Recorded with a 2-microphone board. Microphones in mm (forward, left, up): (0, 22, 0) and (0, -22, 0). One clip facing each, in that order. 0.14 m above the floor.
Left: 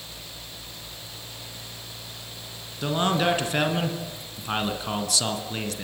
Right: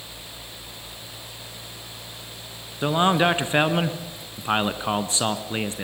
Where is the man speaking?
30° right (ahead or behind), 1.5 m.